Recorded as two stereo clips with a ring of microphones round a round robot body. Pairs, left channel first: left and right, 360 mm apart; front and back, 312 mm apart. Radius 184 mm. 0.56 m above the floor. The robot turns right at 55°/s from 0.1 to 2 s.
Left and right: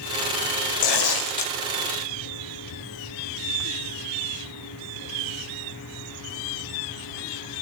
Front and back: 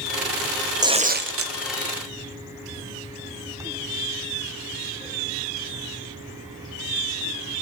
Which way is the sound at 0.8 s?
100° left.